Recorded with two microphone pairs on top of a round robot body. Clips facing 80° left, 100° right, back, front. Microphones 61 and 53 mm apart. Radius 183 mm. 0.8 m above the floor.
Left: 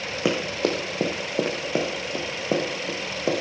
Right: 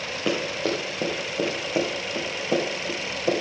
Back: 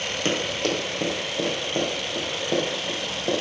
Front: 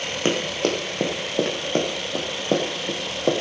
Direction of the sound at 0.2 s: 60° left.